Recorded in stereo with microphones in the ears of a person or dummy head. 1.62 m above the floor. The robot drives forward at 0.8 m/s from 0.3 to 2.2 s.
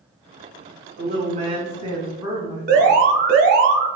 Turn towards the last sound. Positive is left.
turn(degrees=-50)  # may be behind; listen again after turning